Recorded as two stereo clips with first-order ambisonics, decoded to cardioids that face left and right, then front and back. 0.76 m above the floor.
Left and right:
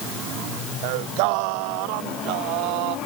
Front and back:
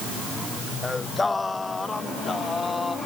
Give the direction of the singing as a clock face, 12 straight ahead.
3 o'clock.